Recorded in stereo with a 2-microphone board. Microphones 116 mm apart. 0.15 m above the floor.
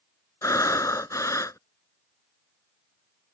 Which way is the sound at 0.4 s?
30° left (ahead or behind).